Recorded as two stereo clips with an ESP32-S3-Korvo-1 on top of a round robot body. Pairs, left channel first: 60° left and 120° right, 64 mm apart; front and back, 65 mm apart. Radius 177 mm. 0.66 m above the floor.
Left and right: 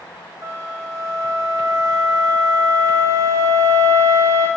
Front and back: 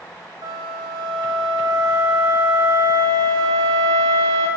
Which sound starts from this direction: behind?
A flute, at 0.4 s.